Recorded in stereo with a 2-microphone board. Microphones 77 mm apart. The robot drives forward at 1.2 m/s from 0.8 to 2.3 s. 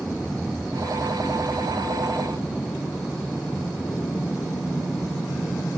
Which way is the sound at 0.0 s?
10° left (ahead or behind).